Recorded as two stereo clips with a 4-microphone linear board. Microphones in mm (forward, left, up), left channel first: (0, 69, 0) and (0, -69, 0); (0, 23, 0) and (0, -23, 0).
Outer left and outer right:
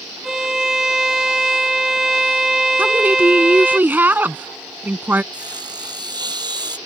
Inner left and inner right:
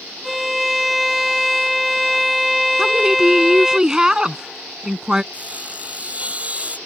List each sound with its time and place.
0.2 s a violin: 5° right (ahead or behind)
2.8 s a woman speaking: 15° right (ahead or behind)
5.3 s sawing: 30° right (ahead or behind)